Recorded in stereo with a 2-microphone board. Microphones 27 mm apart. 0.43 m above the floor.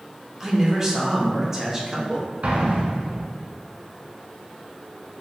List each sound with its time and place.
0.4 s a man speaking: 20° right (ahead or behind), 0.7 m
2.4 s an explosion: 65° right (ahead or behind), 0.7 m